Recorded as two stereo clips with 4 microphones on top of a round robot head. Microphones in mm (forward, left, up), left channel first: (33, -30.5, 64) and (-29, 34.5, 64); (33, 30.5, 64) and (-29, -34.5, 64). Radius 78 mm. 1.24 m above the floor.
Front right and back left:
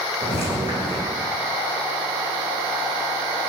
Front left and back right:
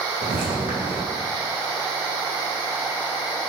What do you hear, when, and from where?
0.2 s footsteps: 165° right, 3.5 m